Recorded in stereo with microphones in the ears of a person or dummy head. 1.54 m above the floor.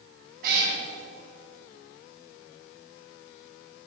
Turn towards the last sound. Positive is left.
turn(degrees=-55)  # may be behind; listen again after turning